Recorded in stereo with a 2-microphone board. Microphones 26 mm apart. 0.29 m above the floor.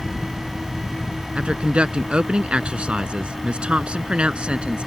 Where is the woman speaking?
40° right (ahead or behind).